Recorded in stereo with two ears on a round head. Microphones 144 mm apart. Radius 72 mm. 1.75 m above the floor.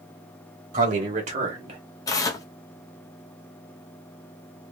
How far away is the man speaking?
About 1.8 m.